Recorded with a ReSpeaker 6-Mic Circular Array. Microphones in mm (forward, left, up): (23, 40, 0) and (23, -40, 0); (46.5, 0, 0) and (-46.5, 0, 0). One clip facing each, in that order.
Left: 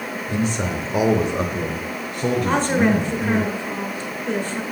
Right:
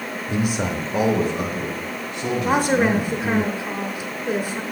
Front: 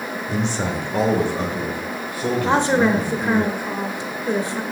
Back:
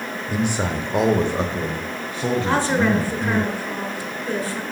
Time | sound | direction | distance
0.3 | a man speaking | 120° right | 0.9 m
2.4 | a woman speaking | 30° right | 0.9 m